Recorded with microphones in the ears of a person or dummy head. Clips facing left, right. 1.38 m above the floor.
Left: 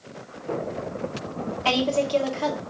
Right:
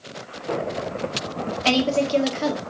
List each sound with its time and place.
1.6 s a woman speaking: 25° right (ahead or behind), 0.8 m